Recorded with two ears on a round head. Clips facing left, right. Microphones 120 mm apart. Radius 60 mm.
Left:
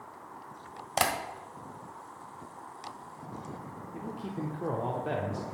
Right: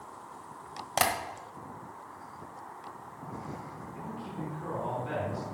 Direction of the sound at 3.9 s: 50° left (ahead or behind).